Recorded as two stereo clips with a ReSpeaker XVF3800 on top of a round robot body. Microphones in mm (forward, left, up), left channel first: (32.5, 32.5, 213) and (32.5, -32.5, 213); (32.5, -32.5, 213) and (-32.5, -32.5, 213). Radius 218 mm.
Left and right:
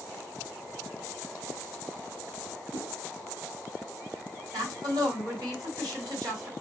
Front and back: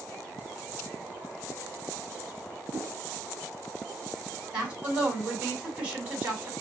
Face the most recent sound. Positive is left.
turn(degrees=-115)